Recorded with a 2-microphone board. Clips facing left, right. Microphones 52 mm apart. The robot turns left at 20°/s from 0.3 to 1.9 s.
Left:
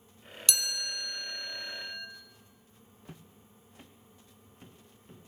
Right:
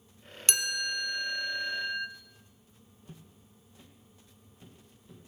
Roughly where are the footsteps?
Left.